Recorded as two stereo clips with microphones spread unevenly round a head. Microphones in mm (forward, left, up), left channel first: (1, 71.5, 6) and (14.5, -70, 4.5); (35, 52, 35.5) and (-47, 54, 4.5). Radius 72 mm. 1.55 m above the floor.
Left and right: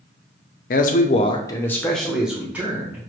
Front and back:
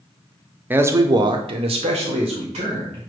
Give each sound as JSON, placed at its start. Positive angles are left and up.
{"t": 0.7, "sound": "a man speaking", "azimuth_deg": 100, "distance_m": 0.6}